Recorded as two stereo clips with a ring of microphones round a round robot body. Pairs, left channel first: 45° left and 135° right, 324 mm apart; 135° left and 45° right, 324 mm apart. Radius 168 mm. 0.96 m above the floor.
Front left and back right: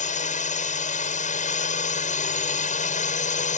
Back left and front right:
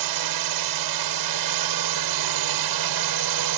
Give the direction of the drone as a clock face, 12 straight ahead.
1 o'clock.